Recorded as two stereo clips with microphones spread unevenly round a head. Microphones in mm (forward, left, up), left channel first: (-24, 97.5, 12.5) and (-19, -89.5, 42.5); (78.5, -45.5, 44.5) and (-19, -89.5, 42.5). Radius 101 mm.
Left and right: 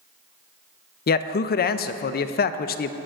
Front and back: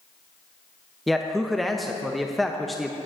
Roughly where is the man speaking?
Behind left.